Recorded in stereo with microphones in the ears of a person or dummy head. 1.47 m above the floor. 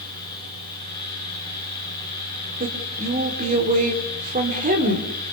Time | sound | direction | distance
0.0 | a fan | 60° right (ahead or behind) | 7.5 m
2.6 | a woman speaking | 40° right (ahead or behind) | 4 m